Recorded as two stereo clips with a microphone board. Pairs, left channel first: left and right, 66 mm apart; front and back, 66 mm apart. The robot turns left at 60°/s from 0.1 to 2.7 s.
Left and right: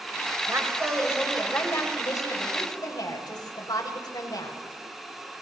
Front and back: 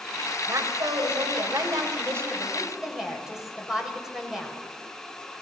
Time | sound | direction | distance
0.5 | a woman speaking | 130° right | 7 m